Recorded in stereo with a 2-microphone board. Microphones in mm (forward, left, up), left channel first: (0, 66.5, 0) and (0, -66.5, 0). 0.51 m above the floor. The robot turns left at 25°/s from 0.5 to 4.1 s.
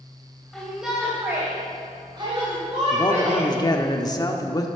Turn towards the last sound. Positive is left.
turn(degrees=30)  # may be behind; listen again after turning